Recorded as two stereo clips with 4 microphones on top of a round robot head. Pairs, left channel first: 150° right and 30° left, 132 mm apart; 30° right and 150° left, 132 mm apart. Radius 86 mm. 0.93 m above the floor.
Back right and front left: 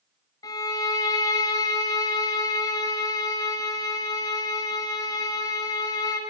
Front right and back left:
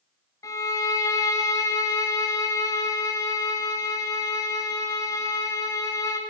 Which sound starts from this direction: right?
A violin, at 0.4 s.